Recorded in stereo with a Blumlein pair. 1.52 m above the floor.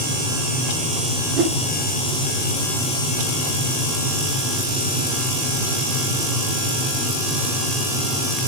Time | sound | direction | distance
1.4 | a whoosh | 35° right | 0.7 m